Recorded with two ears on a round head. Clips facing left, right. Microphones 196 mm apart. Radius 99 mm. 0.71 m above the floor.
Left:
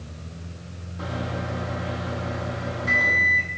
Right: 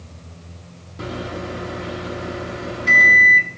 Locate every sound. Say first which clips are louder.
1.0 s a microwave: right 3 dB; 35° right (ahead or behind), 0.7 m